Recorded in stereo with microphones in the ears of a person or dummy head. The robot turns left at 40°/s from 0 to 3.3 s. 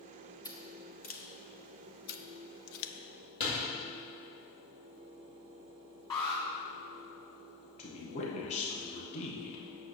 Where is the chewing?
I don't hear chewing.